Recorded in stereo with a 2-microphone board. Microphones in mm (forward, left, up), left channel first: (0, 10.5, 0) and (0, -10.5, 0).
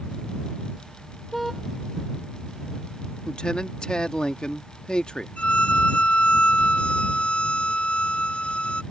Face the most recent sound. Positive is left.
turn(degrees=70)  # may be behind; listen again after turning